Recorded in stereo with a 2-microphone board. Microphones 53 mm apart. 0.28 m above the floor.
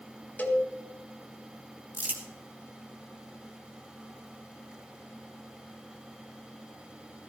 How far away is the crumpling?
About 2 m.